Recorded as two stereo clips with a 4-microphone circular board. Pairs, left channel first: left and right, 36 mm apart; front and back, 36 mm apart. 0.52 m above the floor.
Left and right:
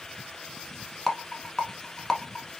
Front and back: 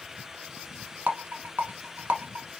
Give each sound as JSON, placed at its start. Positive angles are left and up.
{"t": 1.1, "sound": "a rattle", "azimuth_deg": 170, "distance_m": 0.9}